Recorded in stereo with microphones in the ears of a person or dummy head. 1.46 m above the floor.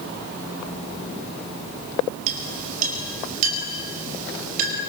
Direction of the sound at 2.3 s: 45° right (ahead or behind).